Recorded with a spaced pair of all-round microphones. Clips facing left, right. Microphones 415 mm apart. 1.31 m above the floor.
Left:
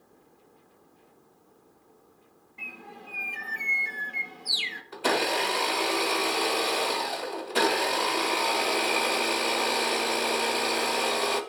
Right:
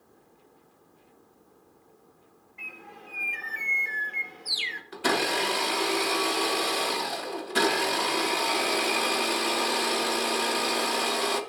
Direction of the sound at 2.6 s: 55° left (ahead or behind).